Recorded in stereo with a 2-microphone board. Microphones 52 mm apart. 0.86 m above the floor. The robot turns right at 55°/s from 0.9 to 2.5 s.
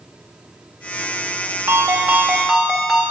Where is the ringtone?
55° right, 1.0 m; by 3.1 s 10° right, 1.0 m.